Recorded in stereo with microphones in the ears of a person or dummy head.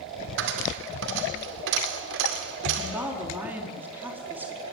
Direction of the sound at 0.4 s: 65° right (ahead or behind).